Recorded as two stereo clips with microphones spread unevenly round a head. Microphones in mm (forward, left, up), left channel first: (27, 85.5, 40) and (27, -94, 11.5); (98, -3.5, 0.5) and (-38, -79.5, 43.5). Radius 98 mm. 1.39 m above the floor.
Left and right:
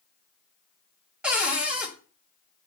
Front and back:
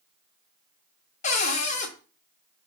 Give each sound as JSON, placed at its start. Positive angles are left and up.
{"t": 1.2, "sound": "a cupboard door", "azimuth_deg": 5, "distance_m": 0.8}